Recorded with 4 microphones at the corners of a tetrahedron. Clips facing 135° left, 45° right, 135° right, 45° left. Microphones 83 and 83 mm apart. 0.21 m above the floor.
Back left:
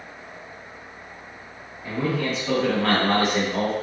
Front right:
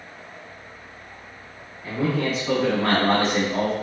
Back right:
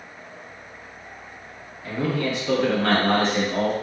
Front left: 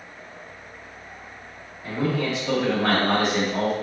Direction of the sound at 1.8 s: 70° left.